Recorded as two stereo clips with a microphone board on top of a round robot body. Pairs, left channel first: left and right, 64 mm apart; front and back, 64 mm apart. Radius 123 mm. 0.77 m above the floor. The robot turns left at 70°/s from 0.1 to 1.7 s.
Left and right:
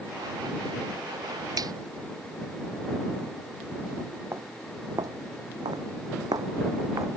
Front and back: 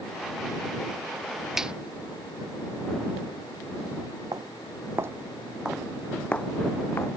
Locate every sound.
1.6 s a finger snap: 95° right; by 1.7 s 105° right
4.3 s footsteps: 150° right; by 7.1 s 50° right